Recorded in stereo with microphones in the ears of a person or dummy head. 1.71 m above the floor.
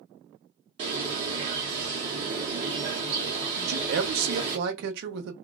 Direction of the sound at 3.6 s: 65° right (ahead or behind).